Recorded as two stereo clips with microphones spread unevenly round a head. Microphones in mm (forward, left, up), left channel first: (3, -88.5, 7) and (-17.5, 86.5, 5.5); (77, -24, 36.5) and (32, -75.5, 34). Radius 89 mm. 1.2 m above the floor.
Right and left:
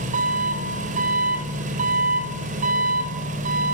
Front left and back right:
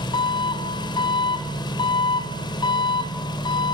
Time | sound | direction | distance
0.0 | an engine running | 45° left | 4.5 m